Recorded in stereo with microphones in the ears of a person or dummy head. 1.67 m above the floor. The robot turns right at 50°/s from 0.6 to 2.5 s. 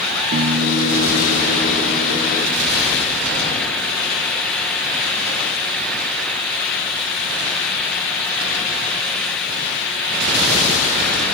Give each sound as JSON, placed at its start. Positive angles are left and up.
{"t": 0.3, "sound": "a piano", "azimuth_deg": -65, "distance_m": 0.8}